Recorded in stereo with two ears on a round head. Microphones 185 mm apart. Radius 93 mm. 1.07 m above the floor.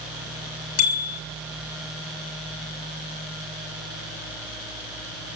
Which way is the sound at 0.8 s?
85° left.